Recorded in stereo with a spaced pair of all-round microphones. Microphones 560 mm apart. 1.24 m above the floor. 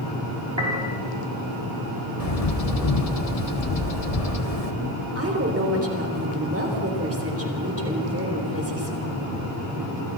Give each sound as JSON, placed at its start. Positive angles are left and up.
{"t": 0.6, "sound": "a piano", "side_deg": -50, "distance_m": 5.0}
{"t": 2.2, "sound": "a bird", "side_deg": 80, "distance_m": 1.5}
{"t": 5.2, "sound": "a woman speaking", "side_deg": -25, "distance_m": 3.5}